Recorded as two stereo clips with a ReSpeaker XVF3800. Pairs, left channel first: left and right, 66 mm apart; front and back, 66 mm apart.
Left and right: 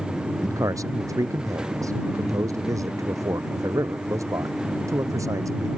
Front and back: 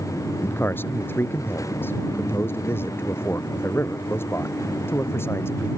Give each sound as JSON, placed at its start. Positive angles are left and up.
{"t": 0.4, "sound": "a man speaking", "azimuth_deg": -55}